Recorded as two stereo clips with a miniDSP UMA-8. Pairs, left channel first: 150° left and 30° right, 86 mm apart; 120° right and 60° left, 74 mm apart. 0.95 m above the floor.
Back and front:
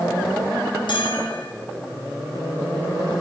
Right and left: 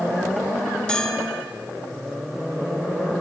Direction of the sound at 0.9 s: 160° left.